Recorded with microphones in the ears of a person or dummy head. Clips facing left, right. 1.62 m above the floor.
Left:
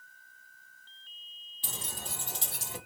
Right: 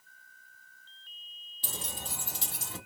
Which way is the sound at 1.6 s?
30° right (ahead or behind).